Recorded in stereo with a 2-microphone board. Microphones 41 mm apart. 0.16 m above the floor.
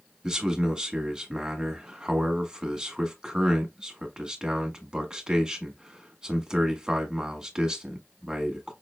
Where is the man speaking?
20° right (ahead or behind), 1.0 m.